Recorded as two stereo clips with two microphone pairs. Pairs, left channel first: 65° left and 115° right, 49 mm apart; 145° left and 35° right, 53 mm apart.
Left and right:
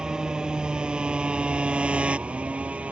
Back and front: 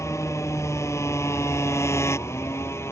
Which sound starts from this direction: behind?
A motorcycle, at 0.0 s.